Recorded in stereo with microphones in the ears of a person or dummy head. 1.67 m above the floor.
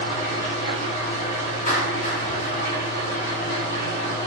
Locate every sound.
0.0 s an engine running: 50° left (ahead or behind), 1.0 m
1.7 s a clap: 45° left (ahead or behind), 0.8 m